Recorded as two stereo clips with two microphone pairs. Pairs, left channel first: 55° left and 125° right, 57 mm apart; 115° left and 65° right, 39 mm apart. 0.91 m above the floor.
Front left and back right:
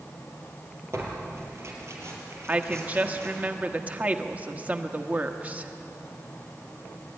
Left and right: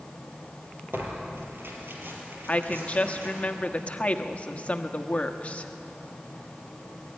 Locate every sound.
0.9 s tearing paper: 90° right, 4.5 m
2.5 s a woman speaking: 170° left, 1.2 m